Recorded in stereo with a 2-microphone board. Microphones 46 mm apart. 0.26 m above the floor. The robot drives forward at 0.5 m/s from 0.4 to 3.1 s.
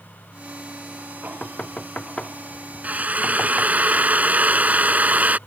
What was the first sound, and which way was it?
Knocking, 25° left (ahead or behind).